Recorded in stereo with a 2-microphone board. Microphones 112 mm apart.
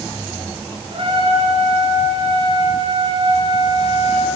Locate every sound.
0.9 s a trumpet: 50° right (ahead or behind), 4 m